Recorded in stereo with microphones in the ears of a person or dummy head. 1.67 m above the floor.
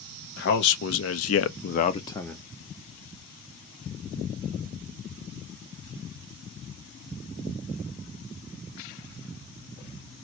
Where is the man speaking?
60° left (ahead or behind), 1.1 m; by 2.5 s centre (ahead or behind), 0.7 m.